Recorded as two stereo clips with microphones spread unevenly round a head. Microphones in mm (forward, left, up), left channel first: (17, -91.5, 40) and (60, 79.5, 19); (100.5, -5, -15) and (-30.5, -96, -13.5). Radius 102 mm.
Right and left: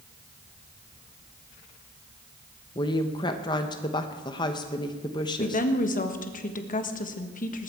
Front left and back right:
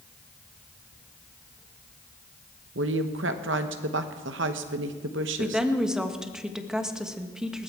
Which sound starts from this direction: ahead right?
A woman speaking, at 5.4 s.